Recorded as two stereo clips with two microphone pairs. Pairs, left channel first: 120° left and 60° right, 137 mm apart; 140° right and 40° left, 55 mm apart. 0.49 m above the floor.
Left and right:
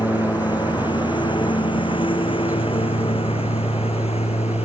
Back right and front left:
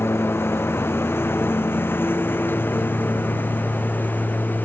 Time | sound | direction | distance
0.0 | a lawn mower | straight behind | ?